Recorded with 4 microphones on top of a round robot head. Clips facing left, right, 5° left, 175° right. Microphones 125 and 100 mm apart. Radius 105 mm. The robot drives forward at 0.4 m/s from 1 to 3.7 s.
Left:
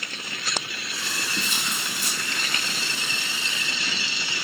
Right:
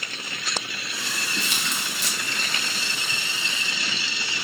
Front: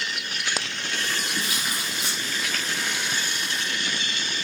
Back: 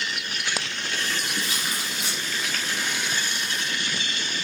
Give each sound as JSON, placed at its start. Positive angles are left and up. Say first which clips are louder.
{"t": 1.4, "sound": "tearing paper", "louder": "even, even", "azimuth_deg": -75, "distance_m": 1.7}